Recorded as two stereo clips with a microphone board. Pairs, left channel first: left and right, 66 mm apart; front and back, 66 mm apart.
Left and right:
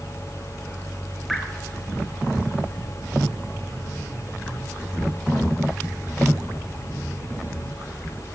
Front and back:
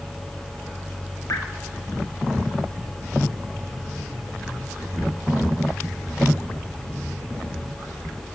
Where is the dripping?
Straight ahead, 1.5 m.